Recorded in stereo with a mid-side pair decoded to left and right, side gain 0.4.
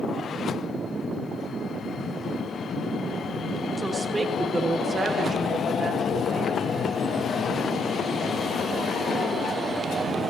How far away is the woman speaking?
About 3 m.